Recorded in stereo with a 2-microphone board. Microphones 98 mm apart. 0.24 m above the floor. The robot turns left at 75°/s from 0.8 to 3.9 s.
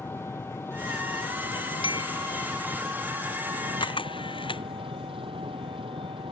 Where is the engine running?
150° left; by 6.3 s 80° right.